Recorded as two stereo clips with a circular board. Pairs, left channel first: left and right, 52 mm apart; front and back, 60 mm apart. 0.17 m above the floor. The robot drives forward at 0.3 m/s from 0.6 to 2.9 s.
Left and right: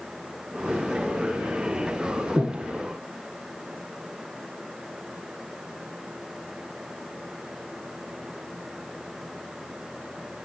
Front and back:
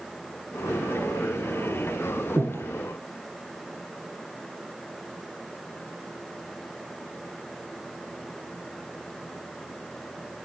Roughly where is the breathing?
Behind right.